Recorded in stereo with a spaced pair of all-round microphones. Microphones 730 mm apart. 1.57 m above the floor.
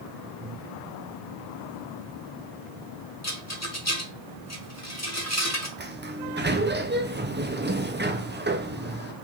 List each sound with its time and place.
0.4 s breathing: 65° right (ahead or behind), 4 m
3.2 s a rattle: 20° left (ahead or behind), 1.1 m
5.8 s a sliding door: 15° right (ahead or behind), 0.7 m